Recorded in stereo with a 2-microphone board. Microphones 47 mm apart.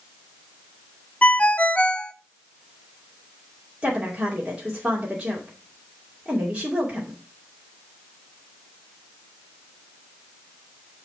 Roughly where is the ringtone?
Left.